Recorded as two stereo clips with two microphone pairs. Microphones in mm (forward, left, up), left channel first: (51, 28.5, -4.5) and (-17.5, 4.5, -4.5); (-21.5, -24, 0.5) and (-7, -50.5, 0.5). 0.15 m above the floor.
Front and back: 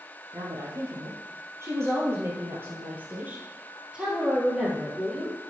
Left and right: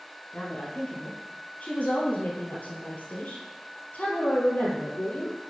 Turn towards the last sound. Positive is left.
turn(degrees=115)